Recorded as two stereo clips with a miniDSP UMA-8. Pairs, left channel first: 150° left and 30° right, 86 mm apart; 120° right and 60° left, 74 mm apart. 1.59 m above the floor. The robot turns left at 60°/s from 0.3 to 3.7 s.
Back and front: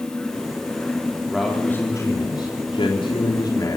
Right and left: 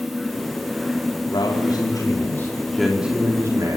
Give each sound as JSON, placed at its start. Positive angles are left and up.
{"t": 1.3, "sound": "a man speaking", "azimuth_deg": -120, "distance_m": 3.5}